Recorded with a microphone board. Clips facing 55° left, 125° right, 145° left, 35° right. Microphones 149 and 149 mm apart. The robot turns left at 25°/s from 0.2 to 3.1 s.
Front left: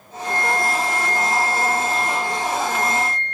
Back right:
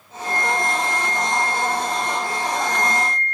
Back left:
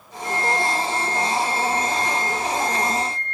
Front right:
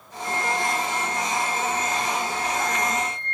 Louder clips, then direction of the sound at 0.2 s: Front left 1 dB, back left 3 dB; 105° right.